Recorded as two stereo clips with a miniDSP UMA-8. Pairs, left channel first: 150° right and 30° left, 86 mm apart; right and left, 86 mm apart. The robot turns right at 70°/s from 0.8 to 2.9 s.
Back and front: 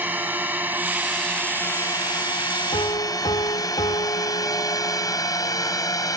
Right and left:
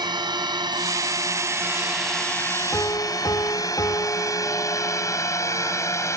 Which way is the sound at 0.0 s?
95° left.